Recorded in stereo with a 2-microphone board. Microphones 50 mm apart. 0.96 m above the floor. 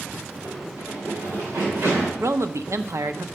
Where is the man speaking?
70° right (ahead or behind), 0.7 m.